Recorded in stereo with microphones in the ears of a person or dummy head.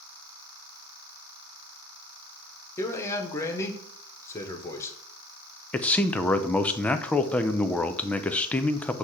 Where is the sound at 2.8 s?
20° left (ahead or behind), 1.2 m.